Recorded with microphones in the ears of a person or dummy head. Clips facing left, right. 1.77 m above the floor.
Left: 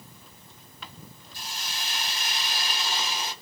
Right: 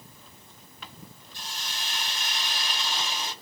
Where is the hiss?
5° left (ahead or behind), 2 m.